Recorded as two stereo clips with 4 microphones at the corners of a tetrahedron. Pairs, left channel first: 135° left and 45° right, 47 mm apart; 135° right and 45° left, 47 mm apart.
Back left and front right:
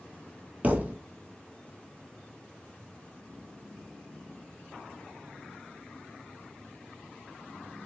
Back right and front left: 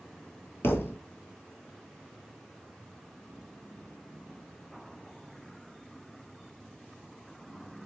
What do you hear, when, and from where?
0.6 s a thud: 100° right, 0.7 m